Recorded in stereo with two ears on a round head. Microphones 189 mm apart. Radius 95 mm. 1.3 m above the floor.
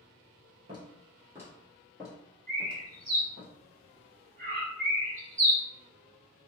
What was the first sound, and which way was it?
Footsteps, 20° right (ahead or behind).